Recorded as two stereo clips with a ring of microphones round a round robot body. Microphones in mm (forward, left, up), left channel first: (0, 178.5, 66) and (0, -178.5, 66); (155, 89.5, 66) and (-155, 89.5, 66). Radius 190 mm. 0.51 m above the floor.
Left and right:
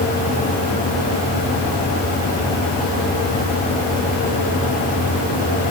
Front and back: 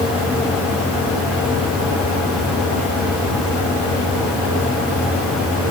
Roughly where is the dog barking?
No dog barking in this recording.